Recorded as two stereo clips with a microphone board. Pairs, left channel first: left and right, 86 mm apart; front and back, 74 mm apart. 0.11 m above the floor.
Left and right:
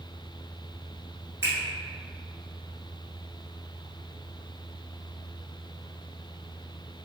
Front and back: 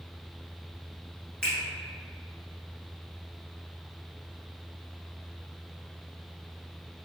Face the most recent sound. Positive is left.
turn(degrees=-65)